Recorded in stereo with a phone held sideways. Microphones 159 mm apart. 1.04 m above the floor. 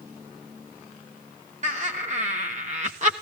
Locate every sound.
1.6 s laughter: 50° right (ahead or behind), 1.3 m